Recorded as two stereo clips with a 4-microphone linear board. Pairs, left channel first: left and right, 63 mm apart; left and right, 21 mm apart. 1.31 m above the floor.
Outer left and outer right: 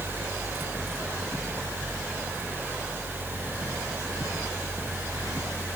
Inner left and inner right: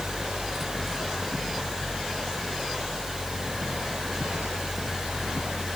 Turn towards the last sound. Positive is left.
No sound to turn to.